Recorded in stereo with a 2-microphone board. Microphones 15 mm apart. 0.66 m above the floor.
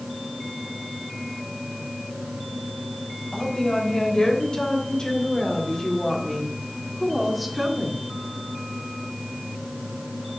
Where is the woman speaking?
75° left (ahead or behind), 4 m; by 8.0 s 10° right (ahead or behind), 2 m.